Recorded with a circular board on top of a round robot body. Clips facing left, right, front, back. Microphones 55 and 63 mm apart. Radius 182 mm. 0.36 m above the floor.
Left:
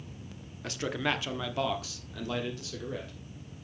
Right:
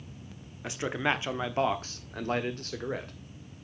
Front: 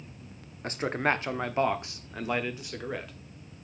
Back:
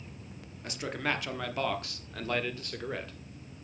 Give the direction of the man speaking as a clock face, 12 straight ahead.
1 o'clock.